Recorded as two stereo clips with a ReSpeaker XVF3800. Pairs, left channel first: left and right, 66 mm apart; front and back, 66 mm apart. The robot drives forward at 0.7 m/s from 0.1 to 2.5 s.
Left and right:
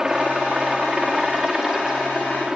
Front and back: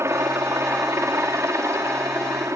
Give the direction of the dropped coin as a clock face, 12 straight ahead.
No dropped coin in this recording.